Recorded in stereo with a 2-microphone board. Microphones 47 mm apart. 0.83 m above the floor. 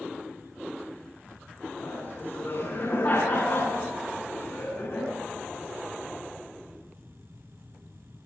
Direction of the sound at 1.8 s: 55° left (ahead or behind).